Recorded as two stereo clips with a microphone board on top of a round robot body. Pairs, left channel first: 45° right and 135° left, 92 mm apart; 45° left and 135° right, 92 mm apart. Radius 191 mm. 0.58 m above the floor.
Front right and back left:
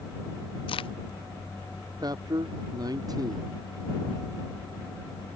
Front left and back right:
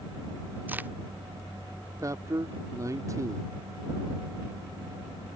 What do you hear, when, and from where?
0.7 s a crack: 65° right
2.0 s a man speaking: 175° left